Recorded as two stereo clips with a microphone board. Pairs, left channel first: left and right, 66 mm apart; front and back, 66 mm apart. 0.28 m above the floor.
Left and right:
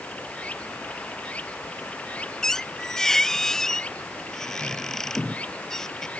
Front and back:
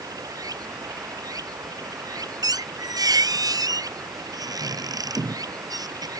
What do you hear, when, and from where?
0.0 s running water: 160° left
2.4 s a squeak: 175° left